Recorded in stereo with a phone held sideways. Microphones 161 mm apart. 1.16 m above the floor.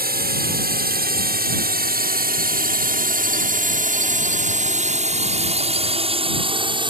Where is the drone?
70° right (ahead or behind); by 6.9 s 30° right (ahead or behind).